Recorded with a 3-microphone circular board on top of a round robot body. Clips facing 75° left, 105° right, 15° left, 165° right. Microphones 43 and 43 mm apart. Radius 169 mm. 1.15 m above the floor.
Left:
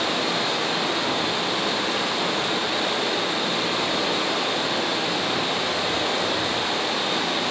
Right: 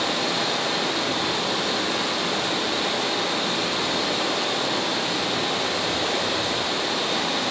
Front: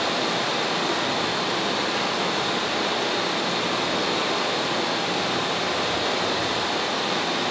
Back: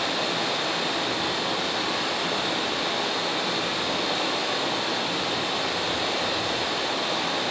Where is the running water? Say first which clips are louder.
Even, front 2 dB; 5° left, 0.8 m.